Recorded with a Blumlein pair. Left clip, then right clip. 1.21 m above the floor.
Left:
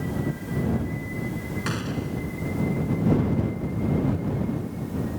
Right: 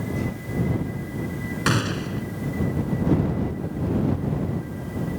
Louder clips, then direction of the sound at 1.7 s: Right 8 dB; 25° right.